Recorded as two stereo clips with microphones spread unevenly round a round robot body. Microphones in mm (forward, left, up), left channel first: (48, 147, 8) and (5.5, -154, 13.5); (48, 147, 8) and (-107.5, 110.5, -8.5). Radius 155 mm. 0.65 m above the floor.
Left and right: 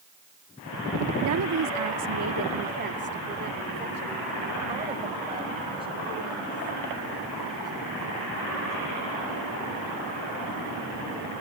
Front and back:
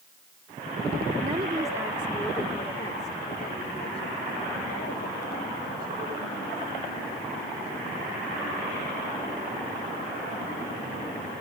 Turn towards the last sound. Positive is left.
turn(degrees=-20)